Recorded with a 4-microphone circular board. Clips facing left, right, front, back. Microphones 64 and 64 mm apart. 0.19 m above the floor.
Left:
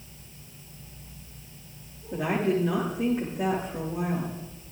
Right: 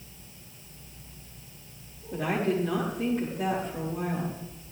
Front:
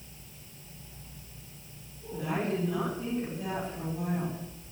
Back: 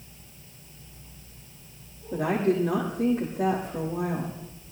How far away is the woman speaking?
About 7.5 m.